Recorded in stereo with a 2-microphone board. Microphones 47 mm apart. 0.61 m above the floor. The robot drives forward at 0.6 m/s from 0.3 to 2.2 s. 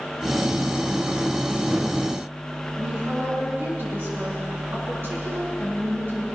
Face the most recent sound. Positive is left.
turn(degrees=-50)  # may be behind; listen again after turning